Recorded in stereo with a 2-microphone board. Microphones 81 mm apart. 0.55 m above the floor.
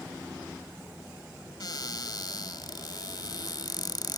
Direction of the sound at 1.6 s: 60° left (ahead or behind).